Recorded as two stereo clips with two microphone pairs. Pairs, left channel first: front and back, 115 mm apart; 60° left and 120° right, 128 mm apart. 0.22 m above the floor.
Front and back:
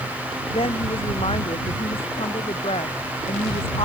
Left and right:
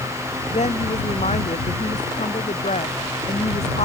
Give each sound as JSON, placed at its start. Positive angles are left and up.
{"t": 0.5, "sound": "a woman speaking", "azimuth_deg": 35}